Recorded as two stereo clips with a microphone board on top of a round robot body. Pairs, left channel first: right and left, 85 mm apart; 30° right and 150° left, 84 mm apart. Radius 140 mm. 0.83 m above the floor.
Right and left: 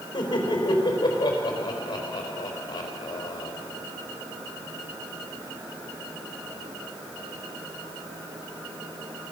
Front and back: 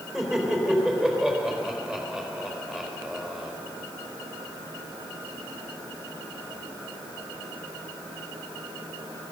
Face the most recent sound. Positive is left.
turn(degrees=-125)